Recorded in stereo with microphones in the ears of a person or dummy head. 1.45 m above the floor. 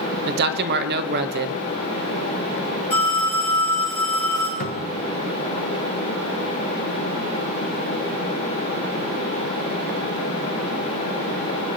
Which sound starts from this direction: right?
A man speaking, at 0.2 s.